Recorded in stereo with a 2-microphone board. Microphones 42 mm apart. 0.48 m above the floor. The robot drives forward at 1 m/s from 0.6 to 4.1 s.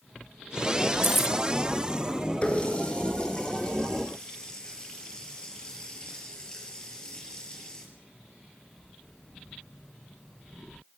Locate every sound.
1.0 s keys jangling: 55° left (ahead or behind), 0.7 m; by 1.4 s 50° left (ahead or behind), 0.7 m
2.4 s a running tap: 30° left (ahead or behind), 4 m; by 7.8 s 20° left (ahead or behind), 5.5 m